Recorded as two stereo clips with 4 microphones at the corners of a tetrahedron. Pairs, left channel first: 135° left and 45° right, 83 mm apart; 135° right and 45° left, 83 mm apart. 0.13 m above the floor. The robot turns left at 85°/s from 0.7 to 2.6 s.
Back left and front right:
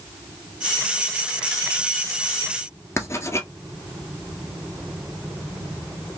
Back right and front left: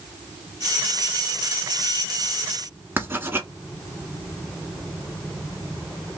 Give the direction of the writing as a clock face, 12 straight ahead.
9 o'clock.